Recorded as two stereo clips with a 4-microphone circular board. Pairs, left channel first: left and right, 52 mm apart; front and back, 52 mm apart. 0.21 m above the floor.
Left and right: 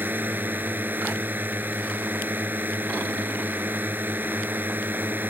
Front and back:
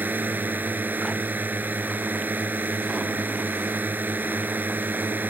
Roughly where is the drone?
Behind right.